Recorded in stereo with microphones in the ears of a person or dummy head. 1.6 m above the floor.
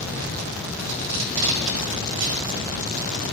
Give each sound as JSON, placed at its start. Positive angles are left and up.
{"t": 0.8, "sound": "tape being pulled", "side_deg": -80, "distance_m": 1.5}